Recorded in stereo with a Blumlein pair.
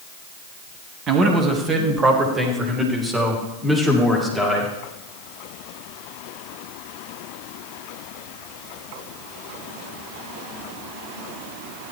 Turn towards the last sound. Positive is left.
turn(degrees=5)